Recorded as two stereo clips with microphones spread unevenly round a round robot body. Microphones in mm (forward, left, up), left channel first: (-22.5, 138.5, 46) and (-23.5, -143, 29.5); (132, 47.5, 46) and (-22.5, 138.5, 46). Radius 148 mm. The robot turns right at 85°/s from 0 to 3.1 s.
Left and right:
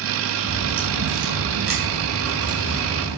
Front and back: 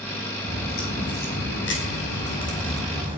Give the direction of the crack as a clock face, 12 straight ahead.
5 o'clock.